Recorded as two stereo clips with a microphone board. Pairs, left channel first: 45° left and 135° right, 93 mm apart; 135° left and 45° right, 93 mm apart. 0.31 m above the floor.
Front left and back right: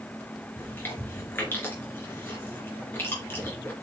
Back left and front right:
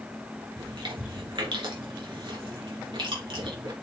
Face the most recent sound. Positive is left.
turn(degrees=-20)